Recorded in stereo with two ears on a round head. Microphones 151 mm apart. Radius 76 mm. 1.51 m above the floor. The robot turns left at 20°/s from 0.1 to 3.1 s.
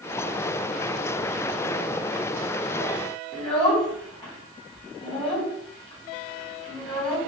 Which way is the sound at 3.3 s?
30° left (ahead or behind).